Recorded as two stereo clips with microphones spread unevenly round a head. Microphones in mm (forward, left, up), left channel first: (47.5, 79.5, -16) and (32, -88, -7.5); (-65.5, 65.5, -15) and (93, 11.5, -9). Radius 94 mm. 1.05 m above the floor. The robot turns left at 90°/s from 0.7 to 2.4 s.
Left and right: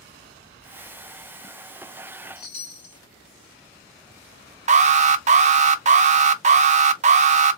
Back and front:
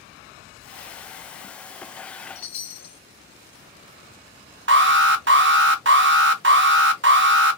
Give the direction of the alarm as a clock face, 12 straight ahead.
2 o'clock.